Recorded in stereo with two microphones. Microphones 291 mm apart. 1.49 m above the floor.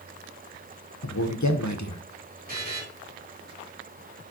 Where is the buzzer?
30° right (ahead or behind), 3.5 m.